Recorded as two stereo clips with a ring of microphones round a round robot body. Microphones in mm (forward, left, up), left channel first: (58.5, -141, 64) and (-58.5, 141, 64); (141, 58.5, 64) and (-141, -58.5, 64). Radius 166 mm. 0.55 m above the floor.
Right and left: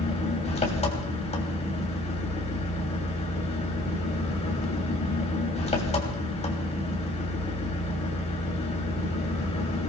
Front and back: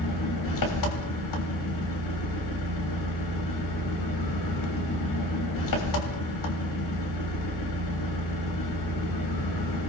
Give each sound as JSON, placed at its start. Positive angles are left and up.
{"t": 0.0, "sound": "an engine running", "azimuth_deg": 0, "distance_m": 3.0}